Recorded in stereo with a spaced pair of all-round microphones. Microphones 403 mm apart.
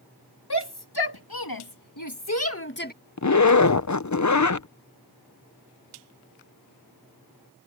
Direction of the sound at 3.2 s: 45° left (ahead or behind).